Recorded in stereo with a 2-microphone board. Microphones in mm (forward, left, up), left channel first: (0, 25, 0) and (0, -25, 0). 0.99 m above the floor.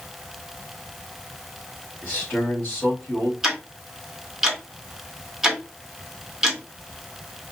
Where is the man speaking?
35° left (ahead or behind), 3.5 m.